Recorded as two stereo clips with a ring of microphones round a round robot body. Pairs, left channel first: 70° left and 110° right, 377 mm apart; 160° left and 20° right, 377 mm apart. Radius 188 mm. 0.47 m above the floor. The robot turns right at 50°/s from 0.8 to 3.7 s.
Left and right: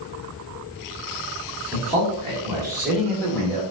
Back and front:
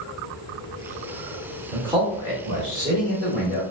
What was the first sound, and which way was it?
A man speaking, 90° right.